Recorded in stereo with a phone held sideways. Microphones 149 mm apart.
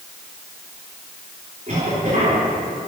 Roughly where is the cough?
Right.